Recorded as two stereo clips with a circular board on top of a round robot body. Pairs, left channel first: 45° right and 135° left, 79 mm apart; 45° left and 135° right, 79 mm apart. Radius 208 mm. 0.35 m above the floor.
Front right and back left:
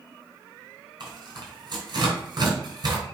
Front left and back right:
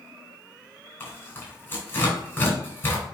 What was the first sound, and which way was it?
Tearing paper, 105° left.